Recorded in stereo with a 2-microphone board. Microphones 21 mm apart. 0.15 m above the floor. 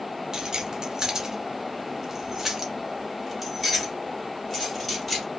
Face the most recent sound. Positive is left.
turn(degrees=5)  # may be behind; listen again after turning